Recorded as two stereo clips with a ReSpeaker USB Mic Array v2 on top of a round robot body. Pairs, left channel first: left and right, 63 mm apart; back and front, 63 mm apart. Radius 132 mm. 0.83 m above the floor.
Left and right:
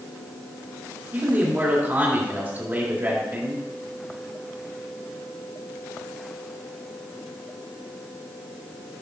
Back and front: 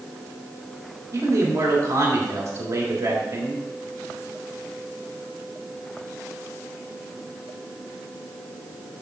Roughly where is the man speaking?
Ahead right.